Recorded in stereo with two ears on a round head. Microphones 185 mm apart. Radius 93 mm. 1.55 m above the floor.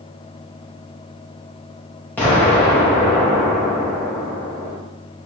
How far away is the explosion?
About 3 m.